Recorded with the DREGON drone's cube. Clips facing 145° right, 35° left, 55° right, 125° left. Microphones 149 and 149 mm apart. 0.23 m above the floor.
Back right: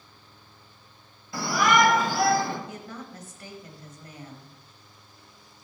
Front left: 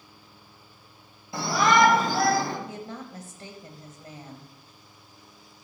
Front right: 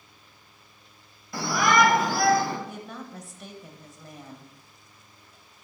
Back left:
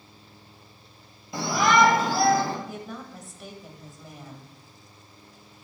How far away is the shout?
About 1.4 m.